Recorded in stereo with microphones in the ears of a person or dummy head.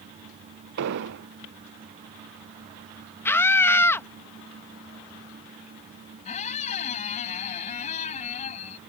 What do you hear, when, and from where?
0.8 s an explosion: 60° right (ahead or behind)
3.2 s a scream: 10° left (ahead or behind)
6.2 s a squeak: 40° left (ahead or behind)